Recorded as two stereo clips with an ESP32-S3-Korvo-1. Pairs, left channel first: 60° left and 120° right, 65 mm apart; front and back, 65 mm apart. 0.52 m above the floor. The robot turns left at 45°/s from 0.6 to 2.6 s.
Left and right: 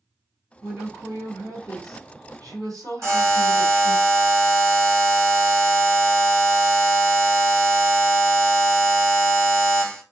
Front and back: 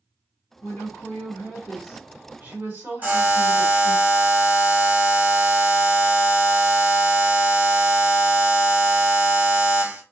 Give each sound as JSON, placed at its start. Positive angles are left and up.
{"t": 0.6, "sound": "a woman speaking", "azimuth_deg": -55, "distance_m": 2.0}
{"t": 3.0, "sound": "a buzzer", "azimuth_deg": -130, "distance_m": 2.0}